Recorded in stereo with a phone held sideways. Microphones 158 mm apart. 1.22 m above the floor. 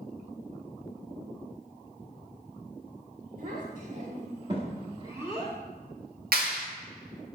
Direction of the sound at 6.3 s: 75° right (ahead or behind).